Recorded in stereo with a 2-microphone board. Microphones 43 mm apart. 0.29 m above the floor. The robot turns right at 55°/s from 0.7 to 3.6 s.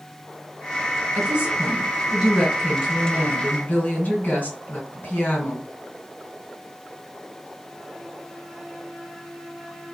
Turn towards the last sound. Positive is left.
turn(degrees=85)